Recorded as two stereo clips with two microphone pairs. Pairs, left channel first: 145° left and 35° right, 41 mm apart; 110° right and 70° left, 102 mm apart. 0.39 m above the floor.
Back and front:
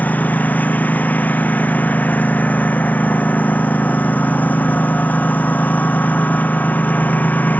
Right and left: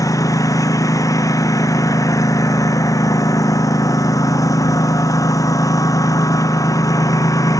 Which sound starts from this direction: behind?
A lawn mower, at 0.0 s.